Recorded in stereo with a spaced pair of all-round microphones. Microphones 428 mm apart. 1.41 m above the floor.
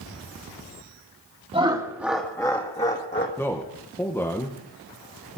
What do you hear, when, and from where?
1.5 s laughter: 15° right (ahead or behind), 1.7 m; by 3.3 s 25° left (ahead or behind), 1.7 m
3.4 s a man speaking: 5° left (ahead or behind), 1.5 m